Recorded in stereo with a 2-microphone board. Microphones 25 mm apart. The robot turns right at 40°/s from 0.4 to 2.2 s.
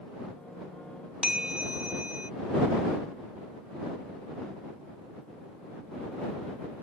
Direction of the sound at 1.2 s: 145° right.